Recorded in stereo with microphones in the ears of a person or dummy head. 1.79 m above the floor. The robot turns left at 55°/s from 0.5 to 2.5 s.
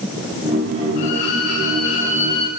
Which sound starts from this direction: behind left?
A violin, at 1.0 s.